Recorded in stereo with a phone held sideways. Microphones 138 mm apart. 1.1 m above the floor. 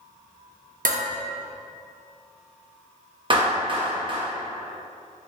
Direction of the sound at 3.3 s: 35° right (ahead or behind).